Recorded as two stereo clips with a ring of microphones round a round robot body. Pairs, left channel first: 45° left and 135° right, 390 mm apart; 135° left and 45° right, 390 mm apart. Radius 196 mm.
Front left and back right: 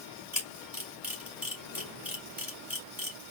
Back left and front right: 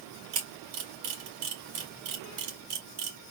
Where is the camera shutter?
50° right, 2.5 m.